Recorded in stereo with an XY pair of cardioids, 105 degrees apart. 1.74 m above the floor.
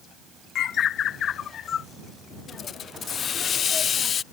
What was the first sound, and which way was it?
A bird, 60° left.